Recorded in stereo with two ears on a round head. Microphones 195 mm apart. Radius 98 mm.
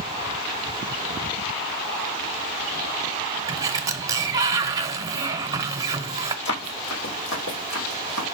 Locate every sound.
3.5 s a sliding door: 15° right (ahead or behind), 0.8 m
6.5 s running footsteps: 55° left (ahead or behind), 2.5 m; by 8.3 s 65° left (ahead or behind), 3 m